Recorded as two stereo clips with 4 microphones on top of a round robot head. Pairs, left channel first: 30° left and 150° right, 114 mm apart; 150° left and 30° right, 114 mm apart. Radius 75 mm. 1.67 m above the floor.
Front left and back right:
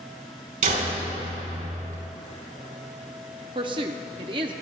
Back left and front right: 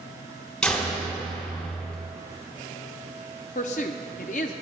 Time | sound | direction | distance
0.6 | a door slam | 130° right | 4.5 m
3.5 | a woman speaking | 165° left | 0.7 m